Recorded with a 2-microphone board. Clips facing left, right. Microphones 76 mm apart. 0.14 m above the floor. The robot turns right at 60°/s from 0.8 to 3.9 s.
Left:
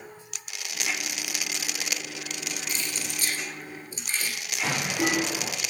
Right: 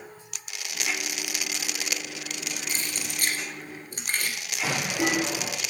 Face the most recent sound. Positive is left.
turn(degrees=-5)  # may be behind; listen again after turning